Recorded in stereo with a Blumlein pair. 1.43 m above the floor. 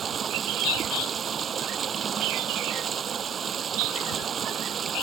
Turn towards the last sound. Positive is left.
turn(degrees=-25)